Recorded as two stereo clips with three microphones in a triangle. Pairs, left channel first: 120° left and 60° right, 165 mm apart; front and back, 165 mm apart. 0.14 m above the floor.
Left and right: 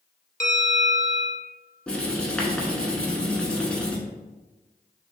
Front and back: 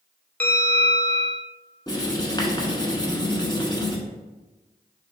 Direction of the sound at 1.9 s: 40° left.